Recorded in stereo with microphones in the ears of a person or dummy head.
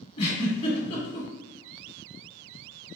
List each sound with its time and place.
0.2 s a giggle: 25° left (ahead or behind), 1.4 m